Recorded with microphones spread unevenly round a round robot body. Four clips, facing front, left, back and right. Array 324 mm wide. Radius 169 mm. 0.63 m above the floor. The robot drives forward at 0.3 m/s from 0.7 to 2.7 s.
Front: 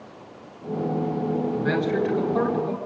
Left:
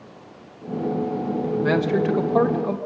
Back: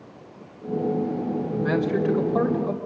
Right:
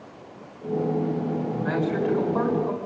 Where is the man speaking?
125° left, 3.5 m; by 2.8 s 130° left, 3.5 m.